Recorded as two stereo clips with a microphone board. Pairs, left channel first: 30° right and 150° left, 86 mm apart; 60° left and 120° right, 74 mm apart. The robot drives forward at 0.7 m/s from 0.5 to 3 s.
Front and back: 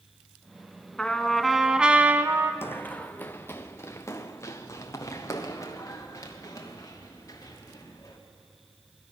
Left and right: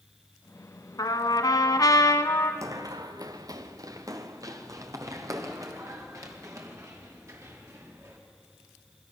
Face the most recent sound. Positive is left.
turn(degrees=-75)